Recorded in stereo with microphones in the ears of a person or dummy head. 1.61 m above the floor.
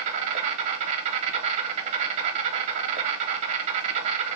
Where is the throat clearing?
No throat clearing in this recording.